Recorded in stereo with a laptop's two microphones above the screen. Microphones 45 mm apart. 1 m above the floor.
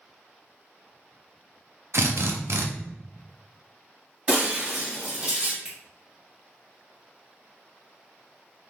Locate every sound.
1.9 s a drill: 65° right (ahead or behind), 0.6 m
4.3 s breaking glass: 40° right (ahead or behind), 1.7 m
5.7 s a finger snap: 15° right (ahead or behind), 1.7 m